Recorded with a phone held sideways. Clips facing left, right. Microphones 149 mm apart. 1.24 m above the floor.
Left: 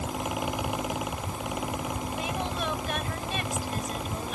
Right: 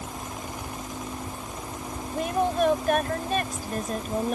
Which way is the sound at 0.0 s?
80° left.